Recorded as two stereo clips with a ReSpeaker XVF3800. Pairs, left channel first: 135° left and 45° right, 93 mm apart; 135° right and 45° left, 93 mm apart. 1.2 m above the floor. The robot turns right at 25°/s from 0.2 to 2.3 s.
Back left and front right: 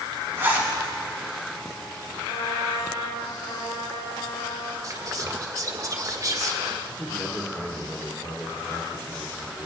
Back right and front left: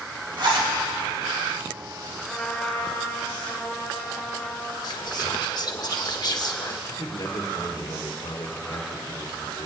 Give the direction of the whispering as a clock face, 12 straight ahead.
3 o'clock.